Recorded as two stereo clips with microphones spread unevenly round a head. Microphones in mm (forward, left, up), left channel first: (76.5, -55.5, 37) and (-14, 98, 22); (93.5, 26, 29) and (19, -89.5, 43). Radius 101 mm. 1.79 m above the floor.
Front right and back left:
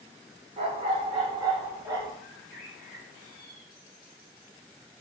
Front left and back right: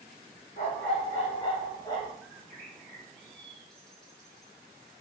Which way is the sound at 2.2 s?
30° right.